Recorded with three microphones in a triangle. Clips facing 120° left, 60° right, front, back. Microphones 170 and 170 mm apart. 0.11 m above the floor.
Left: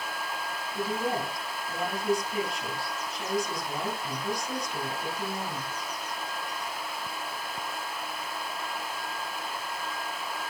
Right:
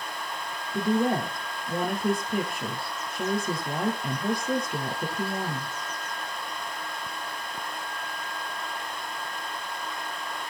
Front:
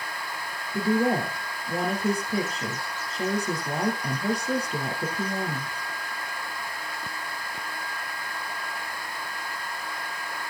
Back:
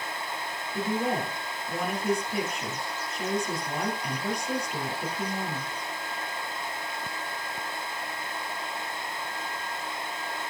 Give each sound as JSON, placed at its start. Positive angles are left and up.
{"t": 0.7, "sound": "a woman speaking", "azimuth_deg": -45, "distance_m": 2.0}